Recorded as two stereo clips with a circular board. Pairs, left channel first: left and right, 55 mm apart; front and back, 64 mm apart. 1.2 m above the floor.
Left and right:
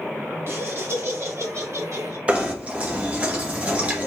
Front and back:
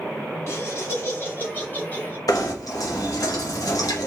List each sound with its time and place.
0.5 s laughter: 45° right, 2.5 m; by 2.2 s 65° right, 2.5 m
2.3 s knocking: 25° right, 1.4 m